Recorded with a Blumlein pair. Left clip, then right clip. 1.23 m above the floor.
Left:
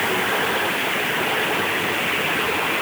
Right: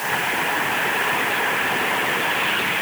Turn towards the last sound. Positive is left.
No sound to turn to.